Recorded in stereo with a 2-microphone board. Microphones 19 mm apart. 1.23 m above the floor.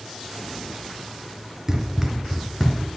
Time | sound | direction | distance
1.7 | running footsteps | 20° right (ahead or behind) | 1.2 m